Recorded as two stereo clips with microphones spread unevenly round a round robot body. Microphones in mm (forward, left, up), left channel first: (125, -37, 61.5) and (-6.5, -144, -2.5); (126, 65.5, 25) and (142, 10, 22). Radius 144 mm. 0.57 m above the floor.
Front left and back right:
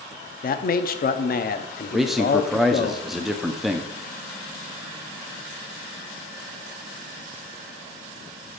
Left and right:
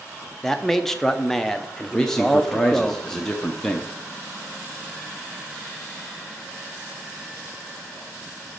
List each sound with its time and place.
0.4 s a man speaking: 25° left, 0.7 m
1.9 s a man speaking: 175° right, 0.6 m